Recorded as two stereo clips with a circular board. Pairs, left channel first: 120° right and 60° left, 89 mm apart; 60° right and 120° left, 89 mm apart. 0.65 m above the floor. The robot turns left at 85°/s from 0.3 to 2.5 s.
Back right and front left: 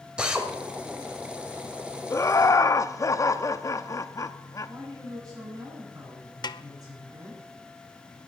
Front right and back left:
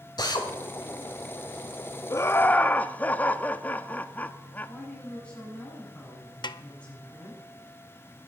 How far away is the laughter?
About 0.6 m.